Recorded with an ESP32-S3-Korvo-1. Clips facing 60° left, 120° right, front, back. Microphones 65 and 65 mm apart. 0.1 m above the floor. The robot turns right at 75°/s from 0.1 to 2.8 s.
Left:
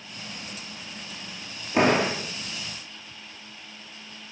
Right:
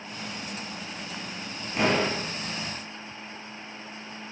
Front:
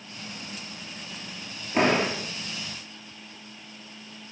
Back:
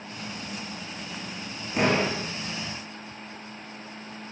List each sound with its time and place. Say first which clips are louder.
1.7 s a door slam: left 4 dB, front 1 dB; 50° left, 5 m; by 2.2 s 85° left, 5 m